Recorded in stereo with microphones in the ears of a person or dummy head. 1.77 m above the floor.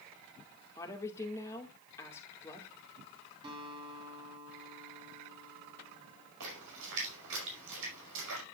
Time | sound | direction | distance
0.8 | a woman speaking | 15° left (ahead or behind) | 2 m
3.4 | a guitar | 30° right (ahead or behind) | 3.5 m
6.4 | a splash | 75° right (ahead or behind) | 5.5 m